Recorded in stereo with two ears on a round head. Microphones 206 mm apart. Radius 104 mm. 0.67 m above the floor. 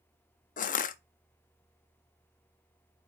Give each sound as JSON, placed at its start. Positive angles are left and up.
{"t": 0.6, "sound": "crushing", "side_deg": 35, "distance_m": 0.5}